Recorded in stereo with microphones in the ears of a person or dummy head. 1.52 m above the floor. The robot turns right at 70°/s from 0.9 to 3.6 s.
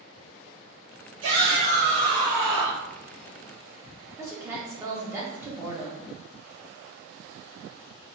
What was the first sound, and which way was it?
A shout, 90° right.